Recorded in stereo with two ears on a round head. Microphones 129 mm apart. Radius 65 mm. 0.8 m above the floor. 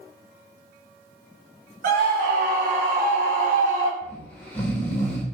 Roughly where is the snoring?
Centre.